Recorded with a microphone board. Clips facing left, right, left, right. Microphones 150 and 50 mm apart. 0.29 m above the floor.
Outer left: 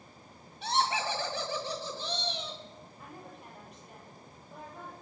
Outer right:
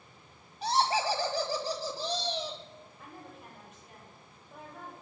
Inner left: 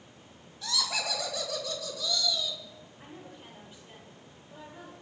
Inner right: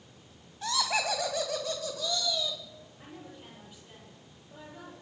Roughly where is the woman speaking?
Centre.